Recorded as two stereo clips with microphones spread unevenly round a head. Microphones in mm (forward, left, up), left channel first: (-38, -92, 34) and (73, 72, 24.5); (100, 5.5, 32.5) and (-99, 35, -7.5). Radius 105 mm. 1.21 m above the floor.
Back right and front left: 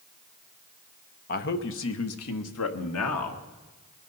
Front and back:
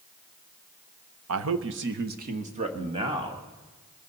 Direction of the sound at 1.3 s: 175° right.